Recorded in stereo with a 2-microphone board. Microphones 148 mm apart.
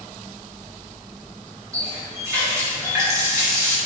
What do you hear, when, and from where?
1.7 s a running tap: 25° right (ahead or behind), 1.5 m